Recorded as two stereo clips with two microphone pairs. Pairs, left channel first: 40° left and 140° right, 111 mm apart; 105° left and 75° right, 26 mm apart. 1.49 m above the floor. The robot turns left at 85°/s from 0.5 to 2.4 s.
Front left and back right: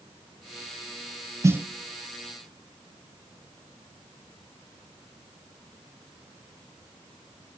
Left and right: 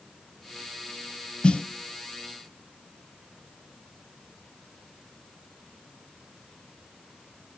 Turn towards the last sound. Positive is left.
turn(degrees=75)